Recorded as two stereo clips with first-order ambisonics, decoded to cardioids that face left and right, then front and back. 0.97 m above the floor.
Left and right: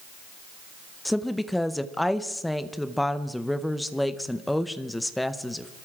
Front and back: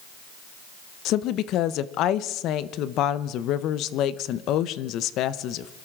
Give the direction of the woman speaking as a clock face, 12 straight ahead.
12 o'clock.